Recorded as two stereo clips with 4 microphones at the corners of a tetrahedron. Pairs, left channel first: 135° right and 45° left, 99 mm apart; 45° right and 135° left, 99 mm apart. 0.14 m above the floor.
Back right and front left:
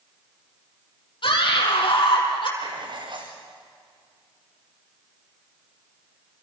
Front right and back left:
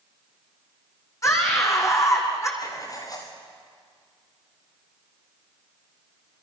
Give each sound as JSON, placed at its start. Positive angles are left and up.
{"t": 1.2, "sound": "a scream", "azimuth_deg": -105, "distance_m": 5.5}
{"t": 2.6, "sound": "writing", "azimuth_deg": 5, "distance_m": 5.0}